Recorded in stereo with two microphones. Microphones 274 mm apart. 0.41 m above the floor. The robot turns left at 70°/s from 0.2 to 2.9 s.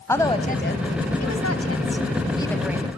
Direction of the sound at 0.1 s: 170° left.